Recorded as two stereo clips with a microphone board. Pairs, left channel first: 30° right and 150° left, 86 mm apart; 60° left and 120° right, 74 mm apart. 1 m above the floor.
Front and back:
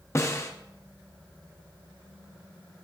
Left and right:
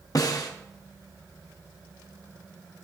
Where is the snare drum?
25° left, 0.8 m.